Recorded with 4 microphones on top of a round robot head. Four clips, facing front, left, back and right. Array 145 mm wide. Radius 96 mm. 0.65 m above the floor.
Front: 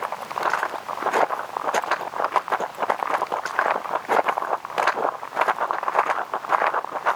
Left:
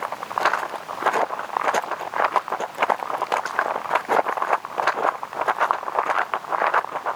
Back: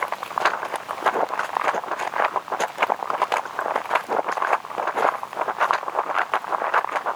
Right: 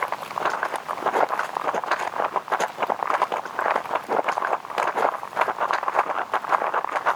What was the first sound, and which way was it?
Only background noise.